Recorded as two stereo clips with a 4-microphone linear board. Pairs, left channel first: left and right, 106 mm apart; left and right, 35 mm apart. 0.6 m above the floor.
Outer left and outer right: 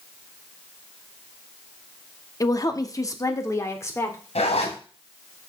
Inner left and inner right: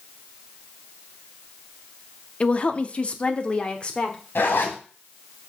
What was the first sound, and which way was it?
A woman speaking, 35° left (ahead or behind).